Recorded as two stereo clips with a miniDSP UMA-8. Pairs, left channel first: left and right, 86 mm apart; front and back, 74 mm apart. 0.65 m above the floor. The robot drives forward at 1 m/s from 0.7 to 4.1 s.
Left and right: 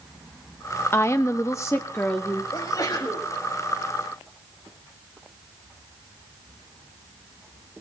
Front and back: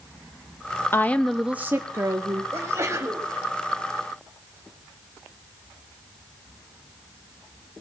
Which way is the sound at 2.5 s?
130° left.